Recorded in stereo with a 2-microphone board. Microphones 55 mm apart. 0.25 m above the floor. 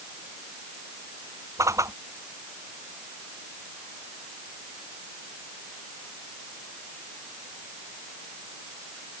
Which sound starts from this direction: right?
A whoosh, at 1.6 s.